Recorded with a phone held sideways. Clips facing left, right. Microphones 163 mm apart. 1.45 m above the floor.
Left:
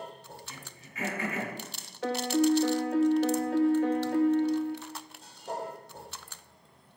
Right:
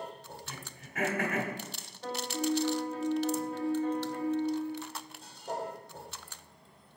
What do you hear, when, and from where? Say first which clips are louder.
0.5 s throat clearing: right 2 dB; 65° right (ahead or behind), 2.5 m
2.0 s a piano: left 8 dB; 70° left (ahead or behind), 0.7 m